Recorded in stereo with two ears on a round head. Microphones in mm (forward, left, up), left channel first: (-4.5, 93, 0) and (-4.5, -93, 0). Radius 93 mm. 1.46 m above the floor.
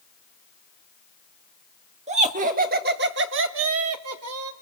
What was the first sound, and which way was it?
Laughter, 35° right (ahead or behind).